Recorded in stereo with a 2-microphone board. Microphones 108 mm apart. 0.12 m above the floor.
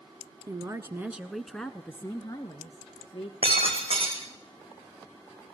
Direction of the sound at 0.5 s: 35° right (ahead or behind).